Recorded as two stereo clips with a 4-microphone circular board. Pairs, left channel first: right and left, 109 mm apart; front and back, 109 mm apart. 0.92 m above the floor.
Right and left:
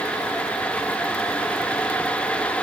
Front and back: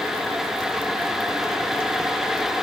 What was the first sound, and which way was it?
Only background noise.